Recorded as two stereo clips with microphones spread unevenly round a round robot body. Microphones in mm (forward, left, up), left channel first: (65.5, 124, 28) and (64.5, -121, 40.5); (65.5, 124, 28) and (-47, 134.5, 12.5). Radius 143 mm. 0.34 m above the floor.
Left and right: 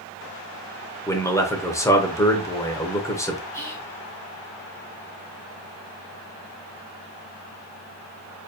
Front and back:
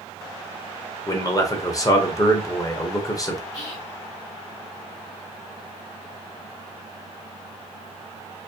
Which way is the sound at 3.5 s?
10° left.